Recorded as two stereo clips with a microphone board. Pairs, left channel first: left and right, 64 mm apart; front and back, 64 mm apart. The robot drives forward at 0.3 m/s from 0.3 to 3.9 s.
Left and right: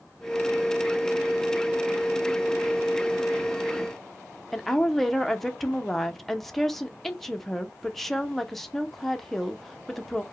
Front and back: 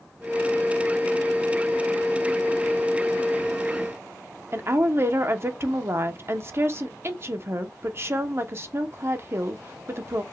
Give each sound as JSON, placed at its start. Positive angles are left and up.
{"t": 4.5, "sound": "a woman speaking", "azimuth_deg": 175, "distance_m": 0.6}